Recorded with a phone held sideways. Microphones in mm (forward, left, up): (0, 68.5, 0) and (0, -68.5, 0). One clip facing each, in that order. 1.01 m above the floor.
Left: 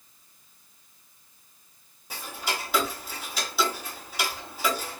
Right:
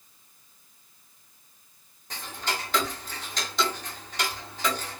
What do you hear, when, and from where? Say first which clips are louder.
2.1 s ticking: even; 10° left (ahead or behind), 0.7 m